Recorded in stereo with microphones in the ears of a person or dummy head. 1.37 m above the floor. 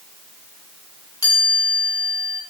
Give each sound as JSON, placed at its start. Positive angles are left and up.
{"t": 1.2, "sound": "a chime", "side_deg": 20, "distance_m": 3.0}